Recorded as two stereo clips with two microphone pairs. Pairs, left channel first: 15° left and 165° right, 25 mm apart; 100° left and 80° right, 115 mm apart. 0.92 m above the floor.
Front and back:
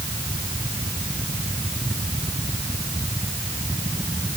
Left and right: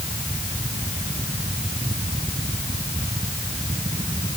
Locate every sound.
Only background noise.